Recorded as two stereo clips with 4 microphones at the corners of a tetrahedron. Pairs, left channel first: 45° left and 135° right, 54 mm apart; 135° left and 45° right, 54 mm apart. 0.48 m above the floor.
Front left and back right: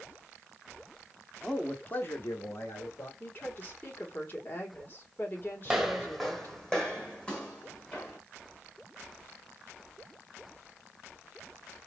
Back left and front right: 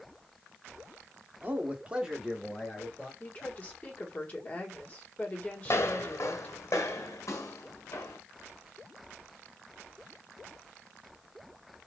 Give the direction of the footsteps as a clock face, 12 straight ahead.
7 o'clock.